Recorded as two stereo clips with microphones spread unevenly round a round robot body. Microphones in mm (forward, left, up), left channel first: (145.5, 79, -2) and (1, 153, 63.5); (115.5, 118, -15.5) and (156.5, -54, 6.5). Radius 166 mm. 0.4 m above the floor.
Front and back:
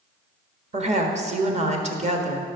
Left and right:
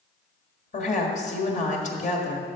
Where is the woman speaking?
100° left, 1.6 m.